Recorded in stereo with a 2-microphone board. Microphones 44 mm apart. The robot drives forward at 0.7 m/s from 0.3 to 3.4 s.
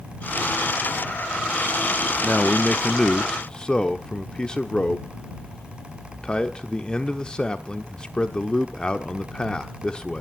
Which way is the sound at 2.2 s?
30° left (ahead or behind).